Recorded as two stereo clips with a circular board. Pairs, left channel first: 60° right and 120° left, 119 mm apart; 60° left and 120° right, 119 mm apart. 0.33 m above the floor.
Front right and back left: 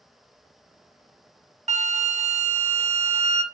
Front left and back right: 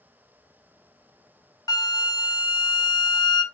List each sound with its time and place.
1.7 s a flute: 115° left, 0.6 m